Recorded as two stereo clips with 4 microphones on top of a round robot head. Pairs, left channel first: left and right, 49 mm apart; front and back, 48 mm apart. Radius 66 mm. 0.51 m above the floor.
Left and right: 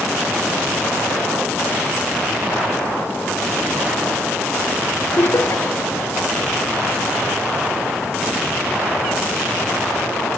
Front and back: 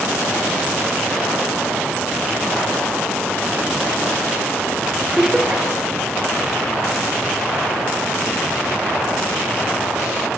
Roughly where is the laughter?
Left.